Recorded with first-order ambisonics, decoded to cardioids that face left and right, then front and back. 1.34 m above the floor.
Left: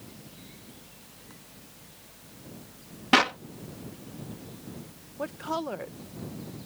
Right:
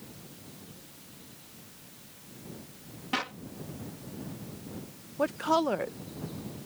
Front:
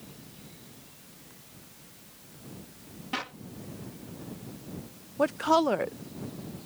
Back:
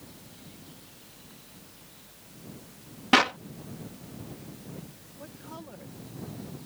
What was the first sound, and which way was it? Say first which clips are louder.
A clap: left 11 dB, back 14 dB; 140° left.